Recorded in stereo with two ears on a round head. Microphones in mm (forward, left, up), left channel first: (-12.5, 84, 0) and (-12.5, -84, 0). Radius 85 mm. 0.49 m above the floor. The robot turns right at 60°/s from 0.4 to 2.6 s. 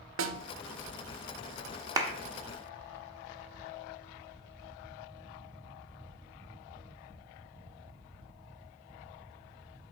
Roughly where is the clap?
Right.